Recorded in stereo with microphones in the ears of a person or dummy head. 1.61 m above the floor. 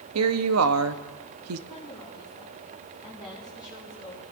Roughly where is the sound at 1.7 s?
Centre.